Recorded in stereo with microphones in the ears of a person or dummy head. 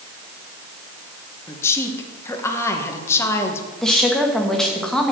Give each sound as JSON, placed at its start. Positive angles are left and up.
{"t": 1.5, "sound": "a woman speaking", "side_deg": 15, "distance_m": 1.8}
{"t": 3.8, "sound": "a woman speaking", "side_deg": 5, "distance_m": 1.7}